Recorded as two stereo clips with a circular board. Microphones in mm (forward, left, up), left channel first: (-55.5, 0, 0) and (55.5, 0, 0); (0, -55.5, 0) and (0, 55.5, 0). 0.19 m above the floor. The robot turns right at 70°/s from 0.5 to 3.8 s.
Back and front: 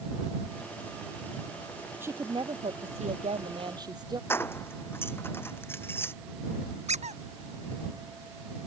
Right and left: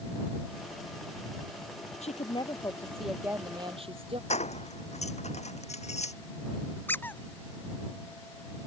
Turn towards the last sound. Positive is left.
turn(degrees=-15)